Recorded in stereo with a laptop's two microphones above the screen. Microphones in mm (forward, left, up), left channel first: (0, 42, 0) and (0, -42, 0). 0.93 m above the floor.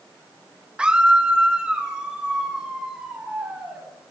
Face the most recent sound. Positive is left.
turn(degrees=-10)  # may be behind; listen again after turning